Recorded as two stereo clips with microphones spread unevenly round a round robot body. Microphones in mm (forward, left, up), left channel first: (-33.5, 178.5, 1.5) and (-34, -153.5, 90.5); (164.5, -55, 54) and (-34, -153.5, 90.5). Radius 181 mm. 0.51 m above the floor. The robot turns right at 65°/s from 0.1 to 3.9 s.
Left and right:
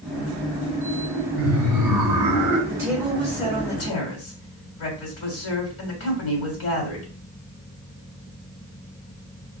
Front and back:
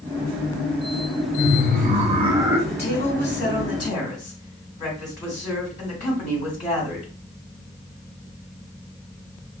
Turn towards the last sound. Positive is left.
turn(degrees=75)